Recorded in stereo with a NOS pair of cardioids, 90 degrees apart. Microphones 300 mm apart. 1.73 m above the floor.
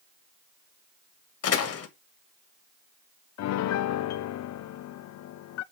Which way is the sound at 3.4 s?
60° left.